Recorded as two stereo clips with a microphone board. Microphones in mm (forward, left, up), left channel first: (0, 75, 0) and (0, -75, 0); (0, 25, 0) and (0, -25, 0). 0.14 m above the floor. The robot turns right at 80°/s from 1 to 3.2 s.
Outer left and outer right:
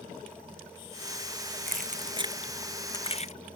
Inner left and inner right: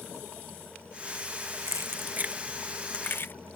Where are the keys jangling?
75° right (ahead or behind); by 3.3 s 45° left (ahead or behind).